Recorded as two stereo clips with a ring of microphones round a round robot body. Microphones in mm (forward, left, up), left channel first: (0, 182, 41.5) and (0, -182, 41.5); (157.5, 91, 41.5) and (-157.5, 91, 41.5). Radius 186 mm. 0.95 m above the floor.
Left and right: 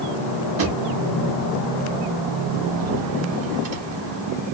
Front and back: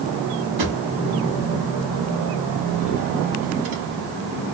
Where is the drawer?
140° right, 1.1 m.